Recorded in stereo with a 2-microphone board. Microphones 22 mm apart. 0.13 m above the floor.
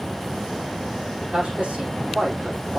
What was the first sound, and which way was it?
A man speaking, 75° right (ahead or behind).